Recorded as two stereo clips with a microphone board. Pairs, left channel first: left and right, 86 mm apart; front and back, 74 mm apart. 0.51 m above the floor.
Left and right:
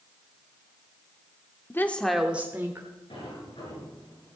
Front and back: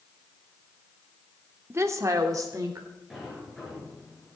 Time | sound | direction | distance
1.7 | a woman speaking | 140° left | 0.9 m
3.1 | a sliding door | 90° left | 4.5 m